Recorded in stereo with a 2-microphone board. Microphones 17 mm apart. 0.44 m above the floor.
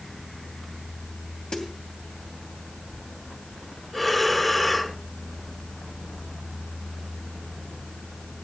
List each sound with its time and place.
1.5 s a snare drum: 45° left (ahead or behind), 2.5 m
3.9 s breathing: 10° left (ahead or behind), 1.8 m